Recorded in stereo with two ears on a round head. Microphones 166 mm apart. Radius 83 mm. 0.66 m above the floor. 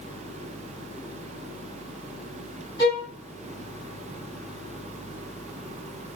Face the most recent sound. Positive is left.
turn(degrees=25)  # may be behind; listen again after turning